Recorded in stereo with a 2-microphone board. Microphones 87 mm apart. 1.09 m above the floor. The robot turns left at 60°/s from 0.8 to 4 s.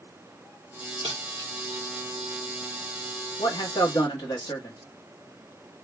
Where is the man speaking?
95° left, 1.6 m; by 4.8 s 60° left, 1.6 m.